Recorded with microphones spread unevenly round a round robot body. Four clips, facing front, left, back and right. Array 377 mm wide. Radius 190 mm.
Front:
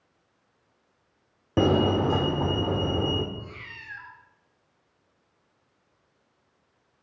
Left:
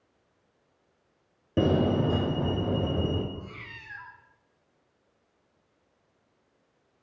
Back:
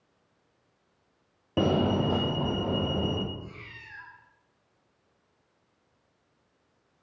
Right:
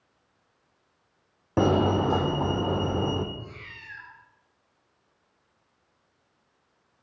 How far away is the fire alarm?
About 2.5 m.